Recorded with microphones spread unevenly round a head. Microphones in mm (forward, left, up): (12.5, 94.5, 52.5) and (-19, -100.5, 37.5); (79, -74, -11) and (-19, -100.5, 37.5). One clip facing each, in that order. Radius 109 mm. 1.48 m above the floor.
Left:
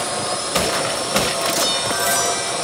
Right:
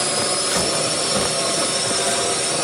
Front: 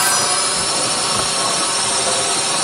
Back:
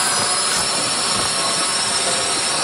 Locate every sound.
0.0 s a drone: 50° right; by 2.6 s 45° right